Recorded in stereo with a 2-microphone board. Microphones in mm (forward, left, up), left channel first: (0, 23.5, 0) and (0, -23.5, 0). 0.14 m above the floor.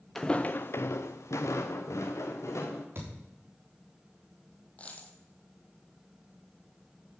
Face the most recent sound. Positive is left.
turn(degrees=30)  # may be behind; listen again after turning